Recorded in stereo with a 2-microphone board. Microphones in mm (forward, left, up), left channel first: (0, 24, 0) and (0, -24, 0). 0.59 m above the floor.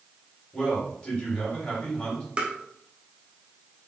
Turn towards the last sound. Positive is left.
turn(degrees=-25)  # may be behind; listen again after turning